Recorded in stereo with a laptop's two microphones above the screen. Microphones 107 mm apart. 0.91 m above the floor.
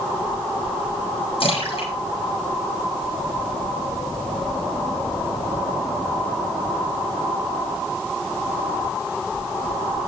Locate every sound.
1.4 s a splash: 60° left (ahead or behind), 9.5 m